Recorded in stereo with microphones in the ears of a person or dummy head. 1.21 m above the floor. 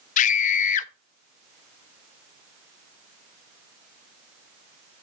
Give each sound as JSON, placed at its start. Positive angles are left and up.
{"t": 0.2, "sound": "a scream", "side_deg": 45, "distance_m": 0.7}